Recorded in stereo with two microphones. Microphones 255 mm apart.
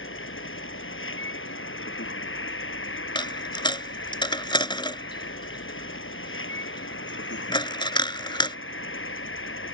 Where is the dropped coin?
20° left (ahead or behind).